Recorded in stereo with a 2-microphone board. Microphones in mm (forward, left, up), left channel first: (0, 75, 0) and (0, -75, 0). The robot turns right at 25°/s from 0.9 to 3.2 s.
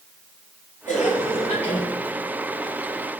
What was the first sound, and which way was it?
A cough, 65° left (ahead or behind).